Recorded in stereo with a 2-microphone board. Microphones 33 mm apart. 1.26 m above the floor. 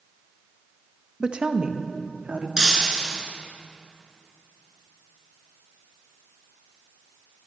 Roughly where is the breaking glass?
Right.